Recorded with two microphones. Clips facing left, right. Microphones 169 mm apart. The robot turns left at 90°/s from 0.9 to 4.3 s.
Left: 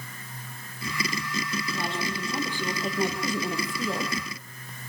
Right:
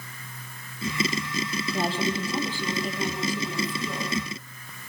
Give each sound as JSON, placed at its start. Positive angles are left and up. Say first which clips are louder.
{"t": 1.7, "sound": "a woman speaking", "louder": "right 8 dB", "azimuth_deg": -125, "distance_m": 4.0}